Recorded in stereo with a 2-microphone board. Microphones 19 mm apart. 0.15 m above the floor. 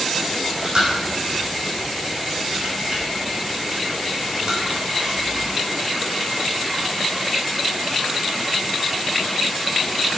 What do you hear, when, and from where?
0.3 s chewing: 45° right (ahead or behind), 5.5 m